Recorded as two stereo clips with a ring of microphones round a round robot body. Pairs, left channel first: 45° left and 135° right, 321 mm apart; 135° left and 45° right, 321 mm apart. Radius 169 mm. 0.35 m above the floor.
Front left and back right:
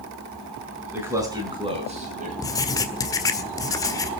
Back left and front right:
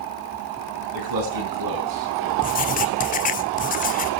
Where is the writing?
110° left, 1.5 m.